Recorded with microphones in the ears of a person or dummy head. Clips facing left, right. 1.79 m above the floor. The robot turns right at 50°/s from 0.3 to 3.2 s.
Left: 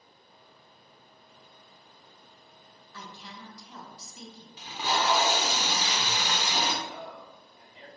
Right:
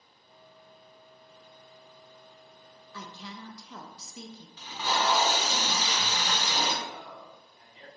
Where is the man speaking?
50° left (ahead or behind), 1.8 m.